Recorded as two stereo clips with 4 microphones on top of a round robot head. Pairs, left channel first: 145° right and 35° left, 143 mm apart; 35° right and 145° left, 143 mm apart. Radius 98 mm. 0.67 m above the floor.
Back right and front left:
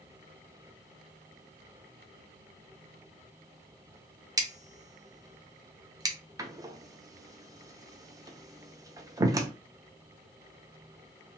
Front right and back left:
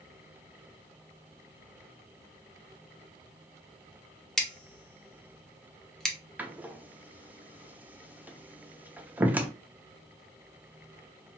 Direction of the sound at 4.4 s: 45° left.